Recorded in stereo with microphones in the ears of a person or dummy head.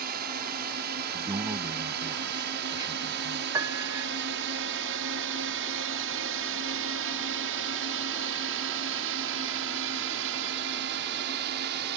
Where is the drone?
55° right (ahead or behind).